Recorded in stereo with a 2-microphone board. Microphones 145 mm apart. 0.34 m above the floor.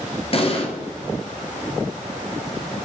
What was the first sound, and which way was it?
An explosion, 45° left (ahead or behind).